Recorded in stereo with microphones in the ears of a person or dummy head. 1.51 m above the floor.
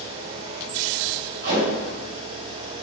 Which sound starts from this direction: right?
Tape being pulled, at 1.4 s.